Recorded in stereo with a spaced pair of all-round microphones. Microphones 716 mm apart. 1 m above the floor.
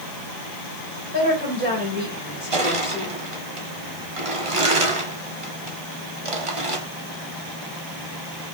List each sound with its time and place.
1.1 s a woman speaking: 15° right (ahead or behind), 5 m
2.5 s crushing: 45° right (ahead or behind), 1.4 m